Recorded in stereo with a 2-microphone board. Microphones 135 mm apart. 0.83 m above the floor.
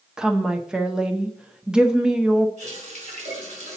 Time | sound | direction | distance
0.2 | a woman speaking | 5° right (ahead or behind) | 0.6 m
2.6 | a running tap | 55° right (ahead or behind) | 3.5 m